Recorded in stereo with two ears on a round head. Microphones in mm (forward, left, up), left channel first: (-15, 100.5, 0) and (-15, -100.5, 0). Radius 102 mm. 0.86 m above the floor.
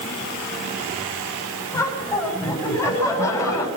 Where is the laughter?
15° left (ahead or behind), 7.5 m.